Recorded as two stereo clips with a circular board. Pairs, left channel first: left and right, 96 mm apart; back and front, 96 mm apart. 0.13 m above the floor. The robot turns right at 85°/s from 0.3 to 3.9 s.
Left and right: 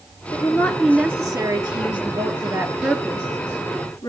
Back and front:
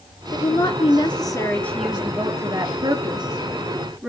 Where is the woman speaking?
130° left, 1.8 m; by 4.1 s 75° left, 1.8 m.